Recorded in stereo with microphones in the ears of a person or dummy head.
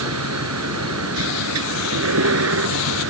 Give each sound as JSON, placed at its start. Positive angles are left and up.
{"t": 0.0, "sound": "a vehicle", "side_deg": -90}